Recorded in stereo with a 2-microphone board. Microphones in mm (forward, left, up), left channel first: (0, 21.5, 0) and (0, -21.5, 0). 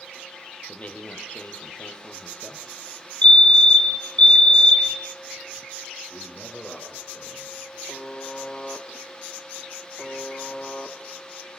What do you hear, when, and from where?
0.7 s a man speaking: 35° left (ahead or behind), 4.5 m
3.2 s a fire alarm: 25° left (ahead or behind), 2 m
6.1 s a man speaking: 20° left (ahead or behind), 8.5 m
7.9 s a buzzer: 20° left (ahead or behind), 2 m